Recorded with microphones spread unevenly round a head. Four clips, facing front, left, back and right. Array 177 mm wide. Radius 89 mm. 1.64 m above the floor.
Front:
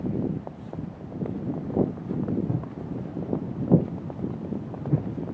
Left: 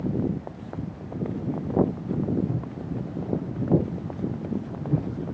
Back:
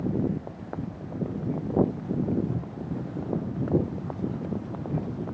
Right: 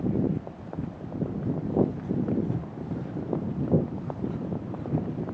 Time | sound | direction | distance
2.5 | footsteps | 5° left | 4.5 m